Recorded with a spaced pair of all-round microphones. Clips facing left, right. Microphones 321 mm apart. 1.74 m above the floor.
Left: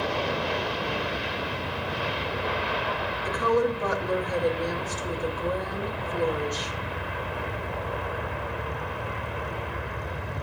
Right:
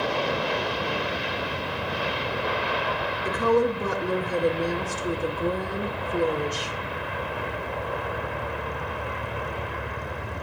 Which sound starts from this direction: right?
A woman speaking, at 3.2 s.